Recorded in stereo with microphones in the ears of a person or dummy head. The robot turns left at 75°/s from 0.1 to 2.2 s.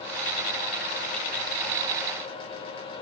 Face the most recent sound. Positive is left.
No sound to turn to.